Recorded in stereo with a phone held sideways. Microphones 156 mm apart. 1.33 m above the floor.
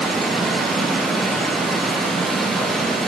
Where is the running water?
Centre (ahead or behind), 3.5 m.